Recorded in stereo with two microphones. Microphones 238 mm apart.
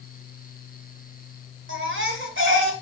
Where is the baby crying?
55° right (ahead or behind), 2 m.